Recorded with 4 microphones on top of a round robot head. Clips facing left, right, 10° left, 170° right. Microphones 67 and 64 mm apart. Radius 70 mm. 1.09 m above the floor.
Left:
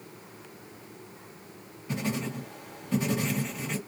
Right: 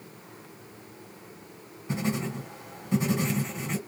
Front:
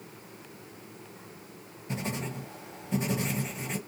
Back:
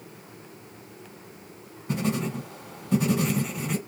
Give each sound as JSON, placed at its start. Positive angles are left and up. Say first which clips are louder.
{"t": 1.9, "sound": "writing", "louder": "right 2 dB, back 7 dB", "azimuth_deg": -155, "distance_m": 1.6}